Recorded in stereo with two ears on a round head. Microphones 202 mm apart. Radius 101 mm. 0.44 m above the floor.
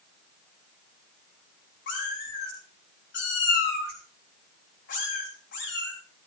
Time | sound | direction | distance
1.9 | a cat meowing | 55° left (ahead or behind) | 5.5 m